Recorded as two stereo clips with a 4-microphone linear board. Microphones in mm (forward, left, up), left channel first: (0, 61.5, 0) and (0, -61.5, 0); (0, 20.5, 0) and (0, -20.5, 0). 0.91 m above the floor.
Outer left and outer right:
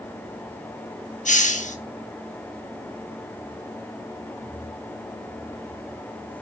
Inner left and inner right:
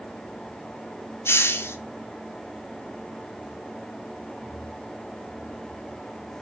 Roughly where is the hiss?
Left.